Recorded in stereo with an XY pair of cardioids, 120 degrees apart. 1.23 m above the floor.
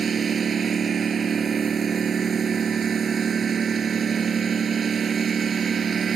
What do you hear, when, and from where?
0.0 s a lawn mower: 35° right